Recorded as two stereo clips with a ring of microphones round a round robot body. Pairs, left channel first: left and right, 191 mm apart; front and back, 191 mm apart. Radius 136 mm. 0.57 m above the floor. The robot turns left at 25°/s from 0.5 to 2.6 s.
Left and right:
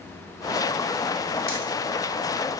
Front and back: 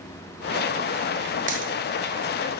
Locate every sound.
1.5 s a dropped coin: 130° left, 0.7 m; by 1.7 s 120° left, 0.7 m